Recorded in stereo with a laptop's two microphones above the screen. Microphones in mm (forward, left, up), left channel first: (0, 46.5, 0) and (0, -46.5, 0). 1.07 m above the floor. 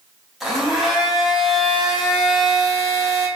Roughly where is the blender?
Centre.